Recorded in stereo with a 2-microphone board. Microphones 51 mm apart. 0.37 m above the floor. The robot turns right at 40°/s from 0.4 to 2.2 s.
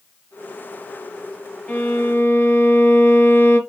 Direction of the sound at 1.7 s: 25° left (ahead or behind).